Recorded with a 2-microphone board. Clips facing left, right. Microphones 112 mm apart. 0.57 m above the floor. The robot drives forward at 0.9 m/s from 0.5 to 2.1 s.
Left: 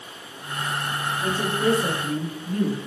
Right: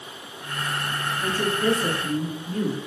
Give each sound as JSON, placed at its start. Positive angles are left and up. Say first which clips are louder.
{"t": 1.2, "sound": "a woman speaking", "louder": "left 1 dB", "side_deg": 25, "distance_m": 6.5}